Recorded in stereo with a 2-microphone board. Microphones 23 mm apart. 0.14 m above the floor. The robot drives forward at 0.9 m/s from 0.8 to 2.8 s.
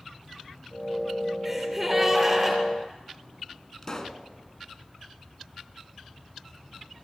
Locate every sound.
1.4 s a gasp: 5° right (ahead or behind), 3 m
3.8 s a pop: 25° left (ahead or behind), 1.0 m